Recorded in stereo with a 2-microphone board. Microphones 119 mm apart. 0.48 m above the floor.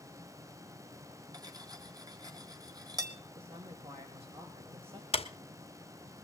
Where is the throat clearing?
I don't hear throat clearing.